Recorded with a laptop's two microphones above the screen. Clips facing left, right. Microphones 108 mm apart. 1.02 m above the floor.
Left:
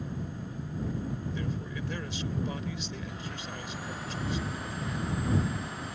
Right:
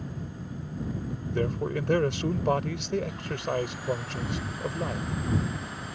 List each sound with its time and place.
1.3 s a man speaking: 65° right (ahead or behind)